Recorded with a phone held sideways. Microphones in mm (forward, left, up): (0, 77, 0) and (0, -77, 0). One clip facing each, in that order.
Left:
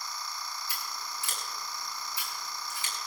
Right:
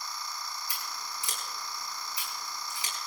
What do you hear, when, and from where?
0.7 s scissors: 15° right (ahead or behind), 8 m